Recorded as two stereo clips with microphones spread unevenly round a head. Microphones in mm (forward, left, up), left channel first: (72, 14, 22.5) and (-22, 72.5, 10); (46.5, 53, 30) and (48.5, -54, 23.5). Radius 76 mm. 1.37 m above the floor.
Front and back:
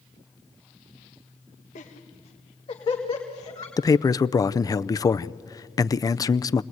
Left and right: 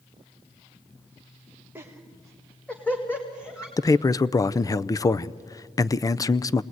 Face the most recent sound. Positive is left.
turn(degrees=30)